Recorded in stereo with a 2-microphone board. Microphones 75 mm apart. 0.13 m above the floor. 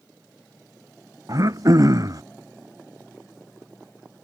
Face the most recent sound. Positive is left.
turn(degrees=-50)  # may be behind; listen again after turning